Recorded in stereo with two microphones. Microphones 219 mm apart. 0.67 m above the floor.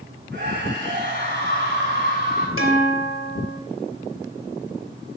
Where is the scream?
55° right (ahead or behind), 7 m.